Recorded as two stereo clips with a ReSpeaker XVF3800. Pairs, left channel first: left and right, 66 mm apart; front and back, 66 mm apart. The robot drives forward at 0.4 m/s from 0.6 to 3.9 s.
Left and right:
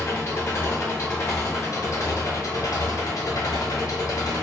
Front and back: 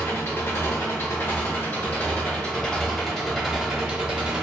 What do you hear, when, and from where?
0.0 s an engine running: 40° left, 1.4 m; by 4.4 s 105° left, 1.0 m